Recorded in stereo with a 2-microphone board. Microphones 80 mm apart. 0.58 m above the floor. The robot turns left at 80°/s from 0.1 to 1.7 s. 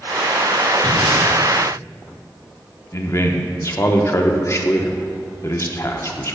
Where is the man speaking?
35° left (ahead or behind), 0.8 m.